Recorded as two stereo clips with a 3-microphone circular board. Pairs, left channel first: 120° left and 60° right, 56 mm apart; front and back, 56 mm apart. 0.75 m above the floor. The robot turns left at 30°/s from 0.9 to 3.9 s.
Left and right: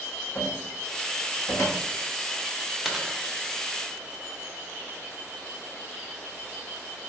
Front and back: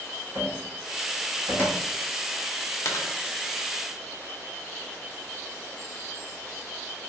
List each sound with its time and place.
0.3 s a cupboard door: 160° left, 0.8 m; by 1.8 s 135° left, 0.8 m
2.9 s a dropped coin: 25° left, 0.6 m; by 3.1 s 15° left, 0.6 m